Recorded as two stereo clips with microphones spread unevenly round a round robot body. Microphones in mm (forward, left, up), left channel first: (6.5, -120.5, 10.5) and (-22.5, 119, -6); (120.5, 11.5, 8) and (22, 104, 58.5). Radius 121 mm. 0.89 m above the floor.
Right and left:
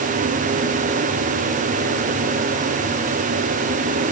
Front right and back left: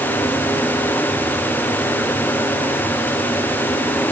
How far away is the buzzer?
I don't hear a buzzer.